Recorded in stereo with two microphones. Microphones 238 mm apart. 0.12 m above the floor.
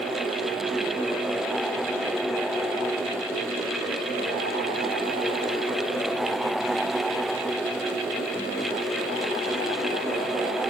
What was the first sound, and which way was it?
Only background noise.